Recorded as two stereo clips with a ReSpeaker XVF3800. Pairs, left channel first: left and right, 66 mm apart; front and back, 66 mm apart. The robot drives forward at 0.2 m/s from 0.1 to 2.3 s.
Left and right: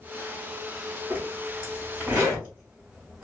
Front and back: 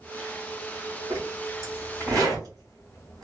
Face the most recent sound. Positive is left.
turn(degrees=-160)